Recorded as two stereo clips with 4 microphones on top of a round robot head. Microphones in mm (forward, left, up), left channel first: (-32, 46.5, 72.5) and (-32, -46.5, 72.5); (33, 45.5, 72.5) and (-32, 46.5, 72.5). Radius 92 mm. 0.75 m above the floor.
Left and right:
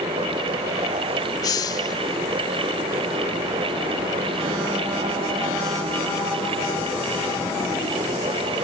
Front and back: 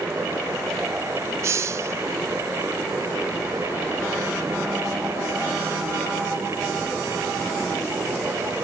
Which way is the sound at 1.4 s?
135° left.